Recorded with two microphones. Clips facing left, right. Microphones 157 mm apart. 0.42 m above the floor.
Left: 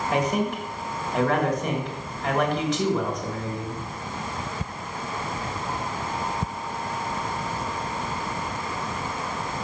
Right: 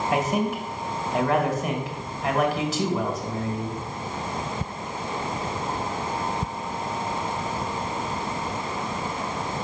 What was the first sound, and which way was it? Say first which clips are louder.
A man speaking: left 1 dB; 5° right (ahead or behind).